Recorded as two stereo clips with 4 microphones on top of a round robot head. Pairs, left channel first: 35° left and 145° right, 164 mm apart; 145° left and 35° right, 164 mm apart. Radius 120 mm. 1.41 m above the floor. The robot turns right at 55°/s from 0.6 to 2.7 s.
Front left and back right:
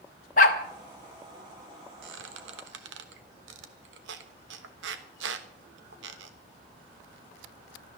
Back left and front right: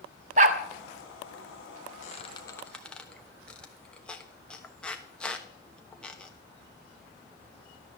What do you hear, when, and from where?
0.4 s a dog barking: straight ahead, 1.0 m
2.0 s a squeak: 170° right, 1.1 m; by 6.3 s 130° right, 1.1 m